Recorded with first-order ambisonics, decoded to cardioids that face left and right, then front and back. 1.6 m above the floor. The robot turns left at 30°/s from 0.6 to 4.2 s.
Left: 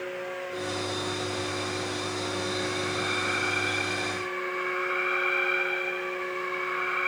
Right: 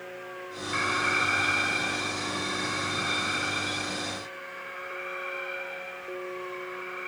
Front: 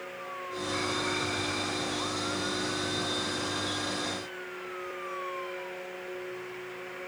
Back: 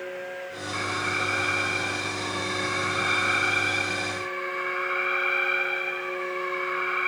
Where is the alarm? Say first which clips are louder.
Right 10 dB, back 4 dB; 105° right; by 7.1 s 150° left.